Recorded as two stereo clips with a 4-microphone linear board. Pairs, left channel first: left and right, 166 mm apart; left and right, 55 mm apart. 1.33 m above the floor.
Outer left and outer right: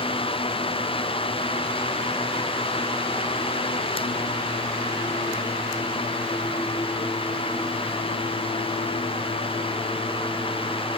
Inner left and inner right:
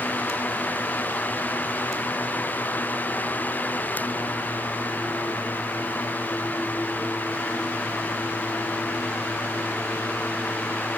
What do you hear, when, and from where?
Only background noise.